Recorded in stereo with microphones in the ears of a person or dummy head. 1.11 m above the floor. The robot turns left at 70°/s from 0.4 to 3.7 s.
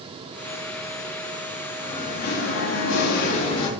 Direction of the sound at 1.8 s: 160° left.